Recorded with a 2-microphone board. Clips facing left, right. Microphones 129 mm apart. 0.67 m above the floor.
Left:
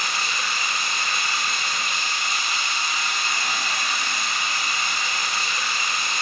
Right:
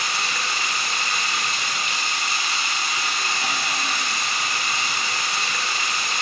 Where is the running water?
75° right (ahead or behind), 1.0 m.